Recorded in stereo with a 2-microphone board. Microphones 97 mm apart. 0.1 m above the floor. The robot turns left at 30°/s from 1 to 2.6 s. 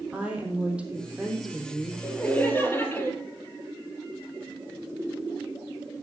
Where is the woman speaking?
10° right (ahead or behind), 3.5 m; by 1.9 s 15° left (ahead or behind), 3.5 m.